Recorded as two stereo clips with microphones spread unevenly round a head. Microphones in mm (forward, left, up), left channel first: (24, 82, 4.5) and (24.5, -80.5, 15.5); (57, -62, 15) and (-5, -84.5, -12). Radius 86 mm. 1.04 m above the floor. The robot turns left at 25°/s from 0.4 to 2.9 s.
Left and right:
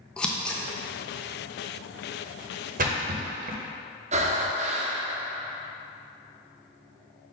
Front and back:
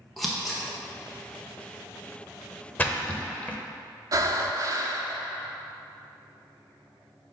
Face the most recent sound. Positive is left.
turn(degrees=-115)